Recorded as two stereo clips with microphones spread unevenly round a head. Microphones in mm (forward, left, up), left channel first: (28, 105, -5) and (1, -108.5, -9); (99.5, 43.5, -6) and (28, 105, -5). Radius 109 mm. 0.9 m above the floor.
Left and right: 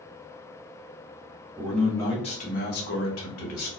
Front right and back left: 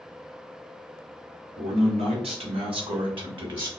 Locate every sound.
1.6 s a man speaking: 175° left, 0.8 m; by 3.7 s 100° left, 1.2 m